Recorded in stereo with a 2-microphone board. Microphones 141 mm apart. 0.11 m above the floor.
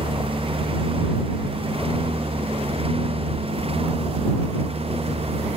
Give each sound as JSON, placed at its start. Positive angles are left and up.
{"t": 0.0, "sound": "a lawn mower", "side_deg": -45}